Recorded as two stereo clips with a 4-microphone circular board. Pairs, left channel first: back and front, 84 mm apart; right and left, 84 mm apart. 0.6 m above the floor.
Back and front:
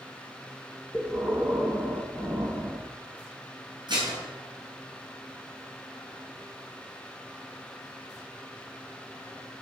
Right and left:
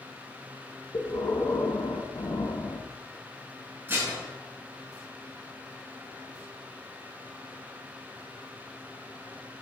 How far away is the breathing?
About 1.6 m.